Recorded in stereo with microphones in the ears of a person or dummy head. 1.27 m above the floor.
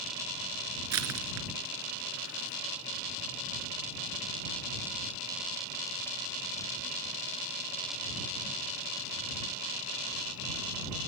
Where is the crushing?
85° right.